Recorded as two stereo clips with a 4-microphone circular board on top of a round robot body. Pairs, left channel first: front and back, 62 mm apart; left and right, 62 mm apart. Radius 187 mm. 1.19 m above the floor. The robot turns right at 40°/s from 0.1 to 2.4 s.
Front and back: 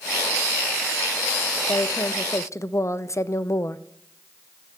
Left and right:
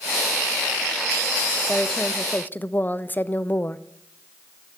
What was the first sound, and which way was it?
A woman speaking, 5° left.